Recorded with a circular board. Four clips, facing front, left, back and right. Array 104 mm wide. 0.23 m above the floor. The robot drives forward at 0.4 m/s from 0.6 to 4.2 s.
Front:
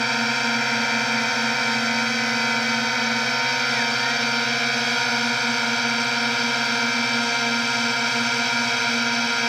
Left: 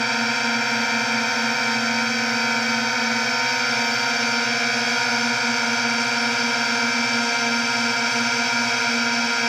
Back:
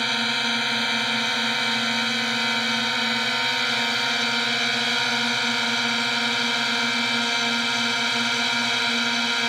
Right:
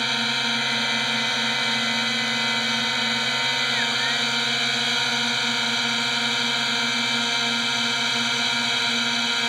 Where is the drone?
50° left; by 9.5 s 60° left.